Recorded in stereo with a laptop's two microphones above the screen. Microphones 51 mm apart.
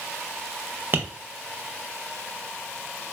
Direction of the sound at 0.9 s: 45° right (ahead or behind).